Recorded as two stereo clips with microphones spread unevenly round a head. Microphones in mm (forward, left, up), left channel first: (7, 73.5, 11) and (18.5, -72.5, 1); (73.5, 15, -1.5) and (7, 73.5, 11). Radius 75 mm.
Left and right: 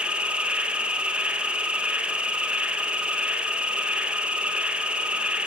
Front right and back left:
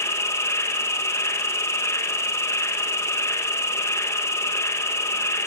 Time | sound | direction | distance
0.0 | an insect | 10° right | 1.7 m